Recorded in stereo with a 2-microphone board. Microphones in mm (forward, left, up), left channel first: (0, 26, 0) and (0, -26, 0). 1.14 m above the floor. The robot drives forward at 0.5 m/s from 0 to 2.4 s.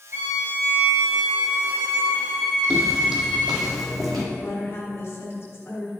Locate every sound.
0.1 s a violin: 50° right (ahead or behind), 1.5 m; by 3.7 s 30° right (ahead or behind), 2 m
2.7 s footsteps: 20° right (ahead or behind), 1.5 m; by 4.2 s centre (ahead or behind), 2.5 m
4.3 s a woman speaking: 45° left (ahead or behind), 1.3 m